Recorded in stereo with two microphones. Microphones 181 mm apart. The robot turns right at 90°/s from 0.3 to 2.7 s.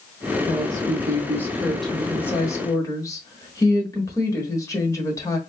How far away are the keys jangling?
I don't hear keys jangling.